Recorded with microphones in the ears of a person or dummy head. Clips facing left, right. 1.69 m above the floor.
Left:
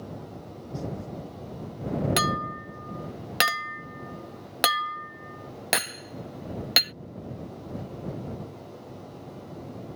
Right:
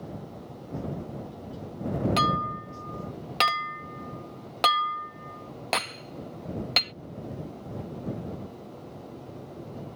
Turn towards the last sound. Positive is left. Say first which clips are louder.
# right 1 dB
turn(degrees=15)  # may be behind; listen again after turning